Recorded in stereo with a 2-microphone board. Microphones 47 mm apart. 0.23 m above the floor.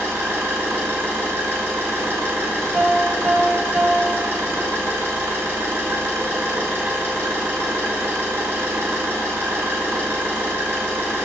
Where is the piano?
20° right (ahead or behind), 0.5 m.